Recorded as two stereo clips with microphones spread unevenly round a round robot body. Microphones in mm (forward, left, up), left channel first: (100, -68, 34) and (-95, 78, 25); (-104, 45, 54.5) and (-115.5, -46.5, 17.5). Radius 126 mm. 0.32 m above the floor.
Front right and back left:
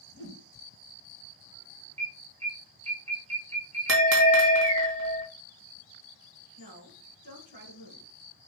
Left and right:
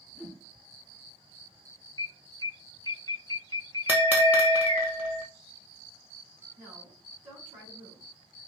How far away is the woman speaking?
About 3 m.